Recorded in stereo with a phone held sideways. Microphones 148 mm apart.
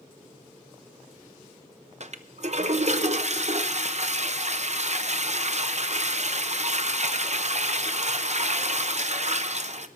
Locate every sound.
2.0 s a toilet flushing: 50° right (ahead or behind), 0.7 m